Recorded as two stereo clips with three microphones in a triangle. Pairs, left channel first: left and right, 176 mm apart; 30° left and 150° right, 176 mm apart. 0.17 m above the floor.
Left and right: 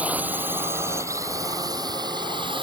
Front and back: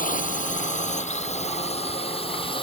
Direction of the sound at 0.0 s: 10° right.